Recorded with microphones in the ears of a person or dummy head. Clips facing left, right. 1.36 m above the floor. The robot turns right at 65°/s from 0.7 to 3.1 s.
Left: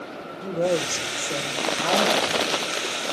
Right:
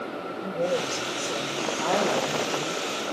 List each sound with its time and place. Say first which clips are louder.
0.4 s a woman speaking: left 4 dB; 105° left, 0.5 m; by 2.8 s 120° right, 0.5 m